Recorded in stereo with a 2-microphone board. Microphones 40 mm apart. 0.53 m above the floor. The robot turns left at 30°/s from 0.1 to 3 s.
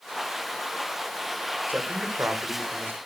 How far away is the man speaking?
About 2 m.